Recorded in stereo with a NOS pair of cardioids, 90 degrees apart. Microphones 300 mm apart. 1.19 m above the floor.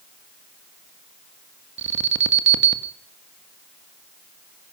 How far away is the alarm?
About 1.5 m.